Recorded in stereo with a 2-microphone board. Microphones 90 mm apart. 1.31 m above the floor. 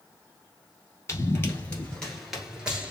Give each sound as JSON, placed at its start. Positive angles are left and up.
{"t": 1.1, "sound": "running footsteps", "side_deg": 30, "distance_m": 1.5}